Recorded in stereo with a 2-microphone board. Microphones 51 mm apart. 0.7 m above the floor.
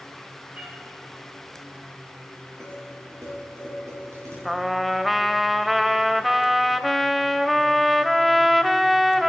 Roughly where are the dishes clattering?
Right.